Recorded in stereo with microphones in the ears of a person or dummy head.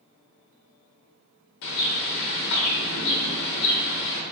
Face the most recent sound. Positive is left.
turn(degrees=60)  # may be behind; listen again after turning